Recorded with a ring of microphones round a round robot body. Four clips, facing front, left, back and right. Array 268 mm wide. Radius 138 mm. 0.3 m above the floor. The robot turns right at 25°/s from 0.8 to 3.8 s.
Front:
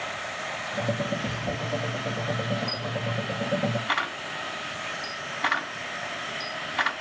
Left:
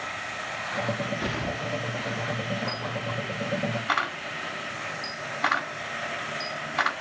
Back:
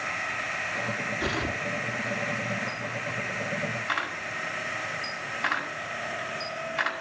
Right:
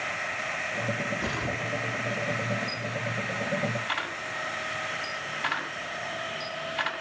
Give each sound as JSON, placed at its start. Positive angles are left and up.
{"t": 1.2, "sound": "tearing paper", "azimuth_deg": 125, "distance_m": 5.0}
{"t": 2.7, "sound": "a camera shutter", "azimuth_deg": 60, "distance_m": 5.0}